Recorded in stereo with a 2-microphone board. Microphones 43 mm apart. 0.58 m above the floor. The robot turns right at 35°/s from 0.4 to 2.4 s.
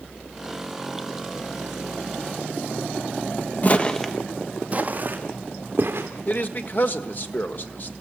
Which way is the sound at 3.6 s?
40° left (ahead or behind).